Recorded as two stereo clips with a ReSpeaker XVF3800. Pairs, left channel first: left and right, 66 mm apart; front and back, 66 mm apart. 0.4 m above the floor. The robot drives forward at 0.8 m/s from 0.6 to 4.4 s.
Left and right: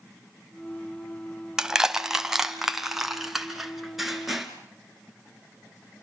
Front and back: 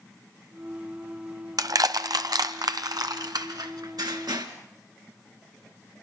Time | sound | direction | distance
1.6 | crushing | 170° right | 1.2 m